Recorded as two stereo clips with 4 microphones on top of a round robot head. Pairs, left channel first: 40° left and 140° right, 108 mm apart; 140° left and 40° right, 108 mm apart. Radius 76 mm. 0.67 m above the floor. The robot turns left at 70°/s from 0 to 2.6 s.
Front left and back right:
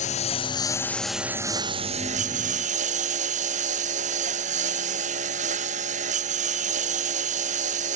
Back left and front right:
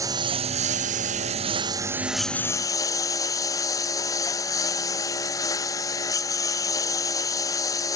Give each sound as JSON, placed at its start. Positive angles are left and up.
{"t": 0.0, "sound": "a lawn mower", "azimuth_deg": 25}